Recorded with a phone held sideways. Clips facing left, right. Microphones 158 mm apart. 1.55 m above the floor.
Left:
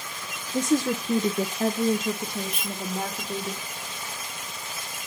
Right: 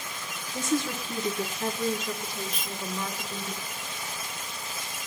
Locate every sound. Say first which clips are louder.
0.5 s a woman speaking: left 5 dB; 45° left (ahead or behind), 1.1 m; by 3.5 s 75° left (ahead or behind), 2.5 m
2.5 s a dropped coin: left 3 dB; 25° left (ahead or behind), 1.8 m